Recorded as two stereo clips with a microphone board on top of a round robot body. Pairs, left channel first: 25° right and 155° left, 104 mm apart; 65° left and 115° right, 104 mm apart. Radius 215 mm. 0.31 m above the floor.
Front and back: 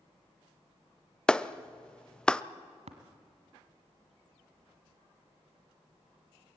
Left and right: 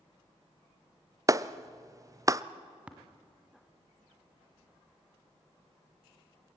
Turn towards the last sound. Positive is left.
turn(degrees=170)